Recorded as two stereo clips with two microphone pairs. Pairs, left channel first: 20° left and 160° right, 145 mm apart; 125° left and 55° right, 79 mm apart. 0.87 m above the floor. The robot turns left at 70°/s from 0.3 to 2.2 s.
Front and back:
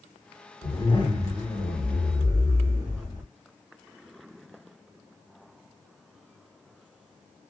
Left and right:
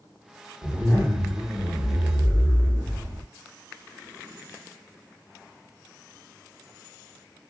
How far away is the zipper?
About 1.2 m.